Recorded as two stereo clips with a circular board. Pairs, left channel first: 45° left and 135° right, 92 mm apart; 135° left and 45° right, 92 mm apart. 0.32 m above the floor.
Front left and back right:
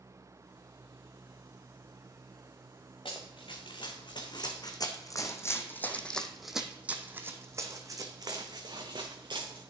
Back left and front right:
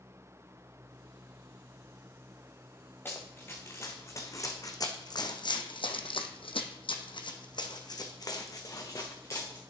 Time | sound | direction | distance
3.0 | running footsteps | 65° left | 1.9 m